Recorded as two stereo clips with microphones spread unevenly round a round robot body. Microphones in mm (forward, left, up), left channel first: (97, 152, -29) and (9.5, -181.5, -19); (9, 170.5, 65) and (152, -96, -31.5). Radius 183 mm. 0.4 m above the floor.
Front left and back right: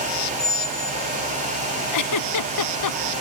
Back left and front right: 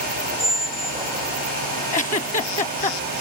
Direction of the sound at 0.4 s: 15° left.